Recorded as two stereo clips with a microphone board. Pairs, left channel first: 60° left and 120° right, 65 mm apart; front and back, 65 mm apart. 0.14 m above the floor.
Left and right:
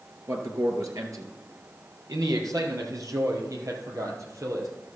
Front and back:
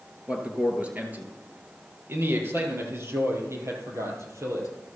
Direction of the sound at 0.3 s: 110° right.